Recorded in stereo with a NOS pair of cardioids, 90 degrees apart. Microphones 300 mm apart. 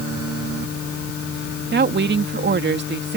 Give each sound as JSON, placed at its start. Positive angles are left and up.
{"t": 1.6, "sound": "a woman speaking", "azimuth_deg": -35}